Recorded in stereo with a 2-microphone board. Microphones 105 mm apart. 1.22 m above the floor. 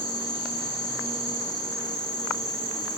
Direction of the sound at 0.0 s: 35° left (ahead or behind).